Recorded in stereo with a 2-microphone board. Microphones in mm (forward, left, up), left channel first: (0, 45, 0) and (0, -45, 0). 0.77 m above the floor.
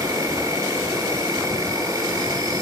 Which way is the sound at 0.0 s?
45° right (ahead or behind).